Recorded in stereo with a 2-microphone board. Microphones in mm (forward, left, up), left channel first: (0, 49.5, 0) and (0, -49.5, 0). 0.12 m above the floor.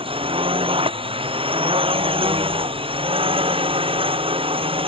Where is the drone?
65° right (ahead or behind).